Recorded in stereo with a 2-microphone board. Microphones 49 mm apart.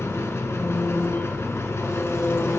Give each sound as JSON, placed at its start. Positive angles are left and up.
{"t": 0.0, "sound": "an engine running", "side_deg": 70, "distance_m": 0.8}